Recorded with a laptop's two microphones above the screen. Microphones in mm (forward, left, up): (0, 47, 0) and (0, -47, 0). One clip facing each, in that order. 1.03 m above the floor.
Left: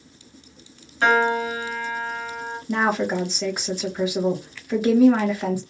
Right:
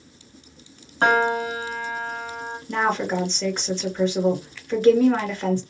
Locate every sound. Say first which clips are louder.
1.0 s a piano: even; 35° right (ahead or behind), 0.8 m
2.7 s a woman speaking: left 1 dB; 10° left (ahead or behind), 1.2 m